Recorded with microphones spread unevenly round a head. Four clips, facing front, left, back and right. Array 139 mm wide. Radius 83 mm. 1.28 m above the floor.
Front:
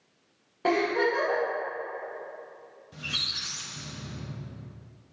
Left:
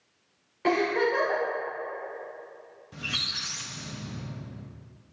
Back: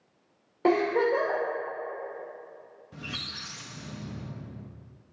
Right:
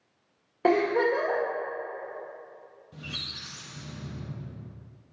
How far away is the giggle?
About 1.8 m.